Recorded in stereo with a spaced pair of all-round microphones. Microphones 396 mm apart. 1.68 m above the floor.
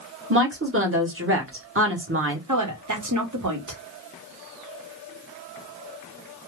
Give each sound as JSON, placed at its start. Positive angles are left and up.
{"t": 0.3, "sound": "a woman speaking", "side_deg": -30, "distance_m": 1.2}
{"t": 2.5, "sound": "a woman speaking", "side_deg": -45, "distance_m": 1.1}